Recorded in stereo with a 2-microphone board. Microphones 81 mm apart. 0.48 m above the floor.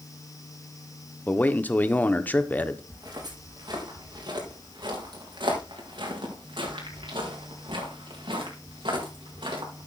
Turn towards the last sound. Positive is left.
turn(degrees=-75)  # may be behind; listen again after turning